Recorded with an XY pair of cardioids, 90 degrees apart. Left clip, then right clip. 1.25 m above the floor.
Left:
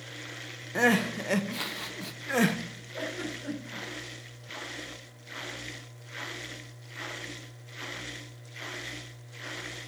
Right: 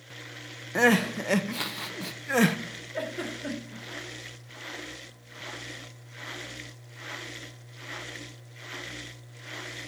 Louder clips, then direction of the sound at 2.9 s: Right 1 dB; 55° right.